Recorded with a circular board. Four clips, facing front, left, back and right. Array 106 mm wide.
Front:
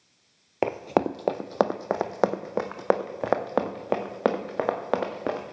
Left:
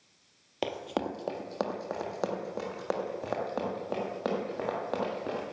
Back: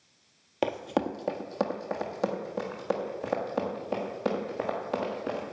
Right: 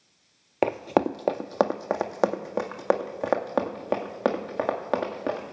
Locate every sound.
0.6 s running footsteps: 65° right, 0.5 m; by 5.5 s 30° right, 3 m